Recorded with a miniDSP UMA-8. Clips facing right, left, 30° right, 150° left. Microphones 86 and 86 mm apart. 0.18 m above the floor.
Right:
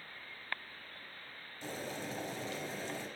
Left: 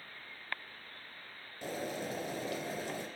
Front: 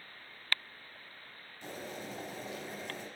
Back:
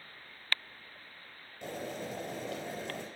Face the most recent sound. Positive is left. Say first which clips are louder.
# left 4 dB, back 4 dB
turn(degrees=125)